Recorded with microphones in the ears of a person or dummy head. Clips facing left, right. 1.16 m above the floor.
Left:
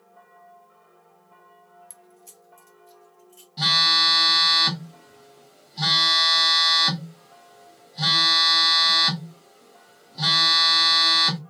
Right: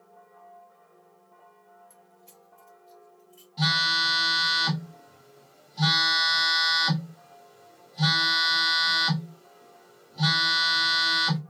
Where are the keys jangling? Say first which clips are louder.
Left 3 dB; 70° left (ahead or behind), 0.6 m; by 3.5 s 35° left (ahead or behind), 2 m.